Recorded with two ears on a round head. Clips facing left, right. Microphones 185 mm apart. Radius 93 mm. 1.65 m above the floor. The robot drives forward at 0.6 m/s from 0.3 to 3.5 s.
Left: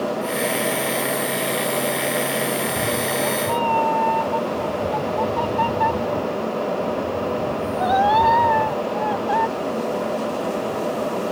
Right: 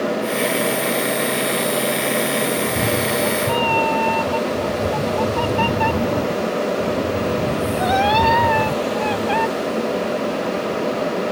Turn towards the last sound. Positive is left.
turn(degrees=-35)  # may be behind; listen again after turning